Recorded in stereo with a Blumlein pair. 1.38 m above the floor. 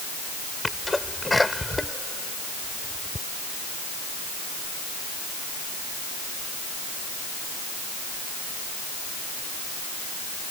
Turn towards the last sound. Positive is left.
turn(degrees=5)